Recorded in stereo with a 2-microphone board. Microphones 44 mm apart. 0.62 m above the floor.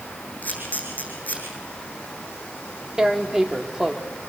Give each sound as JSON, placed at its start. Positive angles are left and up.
{"t": 0.4, "sound": "a camera shutter", "side_deg": 35, "distance_m": 8.5}
{"t": 3.0, "sound": "tearing paper", "side_deg": -15, "distance_m": 1.6}